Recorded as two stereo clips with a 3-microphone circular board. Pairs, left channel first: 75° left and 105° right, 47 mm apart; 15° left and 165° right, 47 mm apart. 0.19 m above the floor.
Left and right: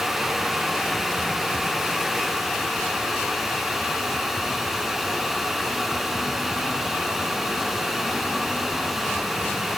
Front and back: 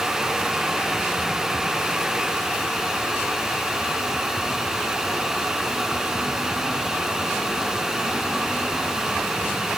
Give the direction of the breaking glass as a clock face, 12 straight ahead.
I don't hear breaking glass.